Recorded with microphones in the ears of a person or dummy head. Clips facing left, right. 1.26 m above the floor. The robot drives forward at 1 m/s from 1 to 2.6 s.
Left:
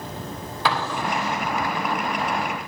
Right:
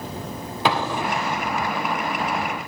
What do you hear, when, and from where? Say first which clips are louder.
0.7 s an explosion: right 2 dB; 20° right (ahead or behind), 2.5 m; by 1.5 s 15° right (ahead or behind), 3 m